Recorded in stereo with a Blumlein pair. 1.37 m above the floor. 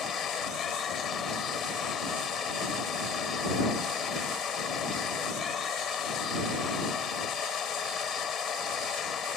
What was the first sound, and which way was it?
A machine running, 25° left.